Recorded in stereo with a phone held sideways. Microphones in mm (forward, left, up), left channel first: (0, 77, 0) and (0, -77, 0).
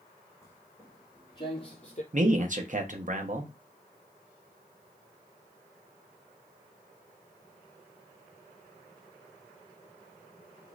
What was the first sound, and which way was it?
Footsteps, 15° left (ahead or behind).